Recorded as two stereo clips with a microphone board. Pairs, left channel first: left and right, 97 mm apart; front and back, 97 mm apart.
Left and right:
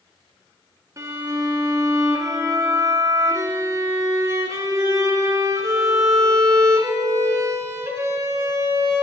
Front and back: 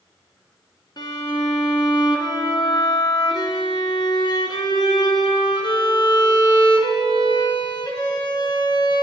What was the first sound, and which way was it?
A violin, 35° right.